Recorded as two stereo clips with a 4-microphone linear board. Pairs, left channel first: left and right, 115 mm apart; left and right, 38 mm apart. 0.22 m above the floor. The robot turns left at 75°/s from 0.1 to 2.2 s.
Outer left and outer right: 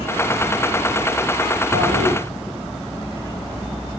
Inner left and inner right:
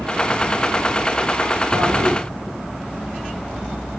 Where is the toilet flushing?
105° right, 6 m; by 2.2 s 135° right, 6 m.